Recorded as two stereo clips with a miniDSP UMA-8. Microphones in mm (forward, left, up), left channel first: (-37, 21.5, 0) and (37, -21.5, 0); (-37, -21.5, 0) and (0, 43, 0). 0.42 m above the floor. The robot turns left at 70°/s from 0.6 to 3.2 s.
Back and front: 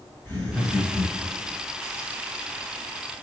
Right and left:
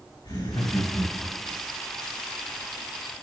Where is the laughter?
135° right, 5 m; by 1.6 s 155° left, 5 m.